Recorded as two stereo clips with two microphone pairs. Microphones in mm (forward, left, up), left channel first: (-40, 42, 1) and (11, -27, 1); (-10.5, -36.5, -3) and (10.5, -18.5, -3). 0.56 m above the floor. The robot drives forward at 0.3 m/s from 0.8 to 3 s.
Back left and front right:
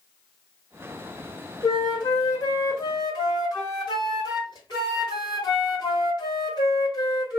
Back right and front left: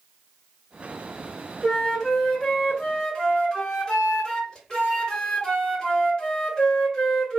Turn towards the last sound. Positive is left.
turn(degrees=150)